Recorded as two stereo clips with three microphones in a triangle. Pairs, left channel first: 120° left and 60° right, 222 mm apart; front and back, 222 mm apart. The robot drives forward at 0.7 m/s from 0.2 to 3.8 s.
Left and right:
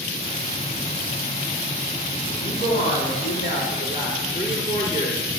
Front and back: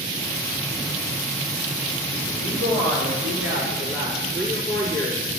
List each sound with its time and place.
2.3 s a woman speaking: 170° left, 4.5 m